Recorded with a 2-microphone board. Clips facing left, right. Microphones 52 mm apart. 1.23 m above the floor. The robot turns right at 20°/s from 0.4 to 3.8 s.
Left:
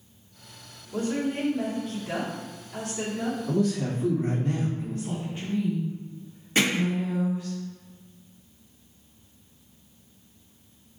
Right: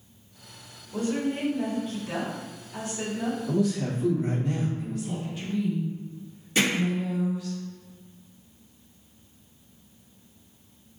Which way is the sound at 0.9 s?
60° left.